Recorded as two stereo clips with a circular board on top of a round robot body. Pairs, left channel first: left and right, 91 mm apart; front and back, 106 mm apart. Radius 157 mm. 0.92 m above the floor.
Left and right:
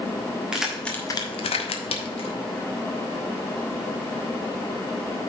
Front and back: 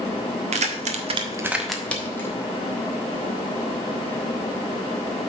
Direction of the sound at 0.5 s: 170° right.